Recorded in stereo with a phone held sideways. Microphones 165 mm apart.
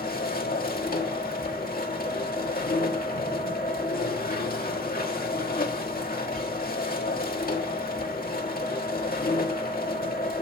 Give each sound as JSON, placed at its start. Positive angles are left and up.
{"t": 0.0, "sound": "a machine running", "side_deg": 65, "distance_m": 1.5}